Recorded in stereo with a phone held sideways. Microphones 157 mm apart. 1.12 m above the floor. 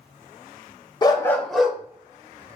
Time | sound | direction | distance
1.0 | a dog barking | 30° left (ahead or behind) | 0.6 m